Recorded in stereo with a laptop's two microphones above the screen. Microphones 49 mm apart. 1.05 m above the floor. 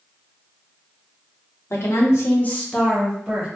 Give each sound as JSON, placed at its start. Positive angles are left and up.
{"t": 1.7, "sound": "a woman speaking", "side_deg": 75, "distance_m": 0.8}